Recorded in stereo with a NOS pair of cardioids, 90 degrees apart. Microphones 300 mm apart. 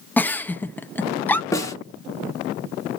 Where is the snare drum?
10° left, 2.5 m.